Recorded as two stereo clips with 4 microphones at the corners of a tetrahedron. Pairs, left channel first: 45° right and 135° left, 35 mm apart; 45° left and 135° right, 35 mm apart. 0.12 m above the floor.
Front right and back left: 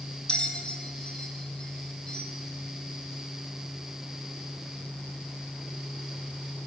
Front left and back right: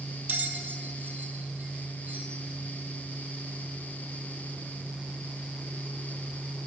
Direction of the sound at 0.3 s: 105° right.